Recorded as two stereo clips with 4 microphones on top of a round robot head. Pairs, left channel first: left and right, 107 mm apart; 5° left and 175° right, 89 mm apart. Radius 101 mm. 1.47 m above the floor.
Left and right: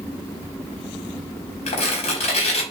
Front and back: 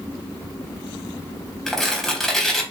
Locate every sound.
1.7 s tearing paper: 90° left, 4 m